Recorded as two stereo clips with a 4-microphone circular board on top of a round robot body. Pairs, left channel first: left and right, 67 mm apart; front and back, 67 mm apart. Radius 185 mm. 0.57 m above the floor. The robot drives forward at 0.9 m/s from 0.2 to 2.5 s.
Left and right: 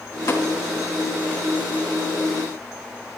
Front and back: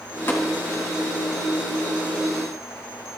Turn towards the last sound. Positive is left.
turn(degrees=85)